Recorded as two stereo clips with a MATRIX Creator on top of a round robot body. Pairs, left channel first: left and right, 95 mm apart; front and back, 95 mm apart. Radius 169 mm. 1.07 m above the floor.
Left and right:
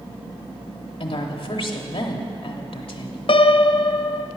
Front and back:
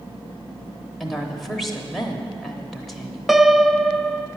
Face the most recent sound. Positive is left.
turn(degrees=95)